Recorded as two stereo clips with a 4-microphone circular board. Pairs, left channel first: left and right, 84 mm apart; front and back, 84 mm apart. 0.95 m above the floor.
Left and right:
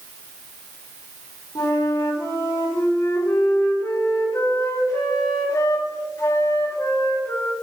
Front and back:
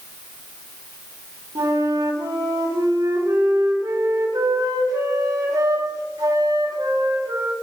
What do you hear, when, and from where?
1.6 s a flute: 145° left, 3.5 m